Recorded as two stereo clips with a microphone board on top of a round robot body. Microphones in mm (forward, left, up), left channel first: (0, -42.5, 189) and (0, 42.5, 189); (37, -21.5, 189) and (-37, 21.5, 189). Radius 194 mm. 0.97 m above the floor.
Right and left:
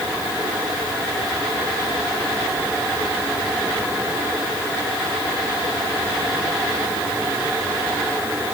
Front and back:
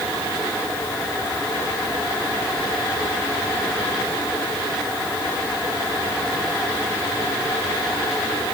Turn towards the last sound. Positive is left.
No sound to turn to.